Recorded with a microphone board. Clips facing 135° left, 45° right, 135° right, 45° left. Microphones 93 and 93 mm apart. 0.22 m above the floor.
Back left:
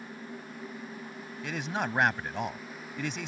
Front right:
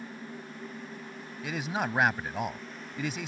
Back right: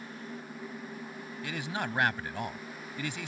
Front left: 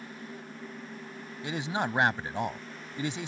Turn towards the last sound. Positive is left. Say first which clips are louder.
# front right 1 dB, front left 4 dB
turn(degrees=40)